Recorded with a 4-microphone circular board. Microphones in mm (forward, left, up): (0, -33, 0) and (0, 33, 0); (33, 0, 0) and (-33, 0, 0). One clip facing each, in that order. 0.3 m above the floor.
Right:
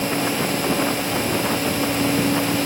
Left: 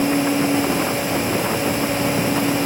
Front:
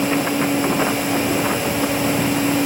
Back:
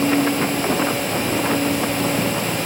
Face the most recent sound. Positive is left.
No sound to turn to.